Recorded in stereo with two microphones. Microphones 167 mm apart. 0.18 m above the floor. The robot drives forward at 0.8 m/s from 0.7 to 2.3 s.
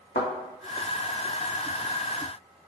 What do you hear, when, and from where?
0.1 s a thud: 70° left (ahead or behind), 2 m